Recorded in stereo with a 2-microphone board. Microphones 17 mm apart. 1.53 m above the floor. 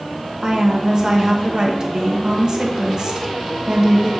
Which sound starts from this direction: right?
A woman speaking, at 0.4 s.